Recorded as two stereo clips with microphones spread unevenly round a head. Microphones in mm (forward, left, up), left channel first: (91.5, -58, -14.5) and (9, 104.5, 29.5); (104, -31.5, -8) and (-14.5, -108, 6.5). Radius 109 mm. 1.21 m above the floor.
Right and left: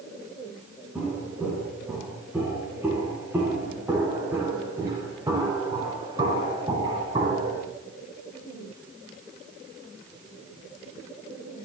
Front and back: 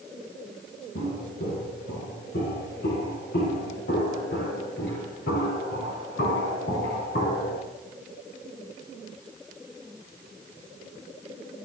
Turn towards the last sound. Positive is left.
turn(degrees=60)